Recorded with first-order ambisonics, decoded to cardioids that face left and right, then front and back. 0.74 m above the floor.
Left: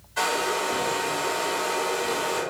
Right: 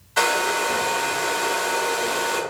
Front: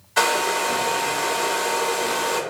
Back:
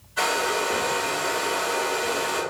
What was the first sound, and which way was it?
A hair dryer, 30° right.